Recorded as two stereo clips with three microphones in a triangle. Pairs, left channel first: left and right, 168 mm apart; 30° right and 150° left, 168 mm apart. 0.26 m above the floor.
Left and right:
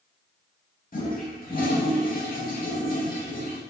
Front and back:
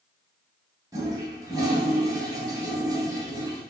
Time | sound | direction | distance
0.9 | a toilet flushing | 85° left | 0.8 m